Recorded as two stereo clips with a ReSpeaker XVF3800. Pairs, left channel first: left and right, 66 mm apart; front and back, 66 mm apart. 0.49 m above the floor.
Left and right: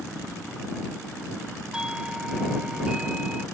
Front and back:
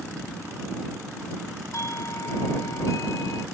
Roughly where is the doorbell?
Ahead.